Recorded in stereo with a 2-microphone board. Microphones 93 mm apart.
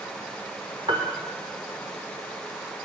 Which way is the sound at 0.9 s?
75° right (ahead or behind).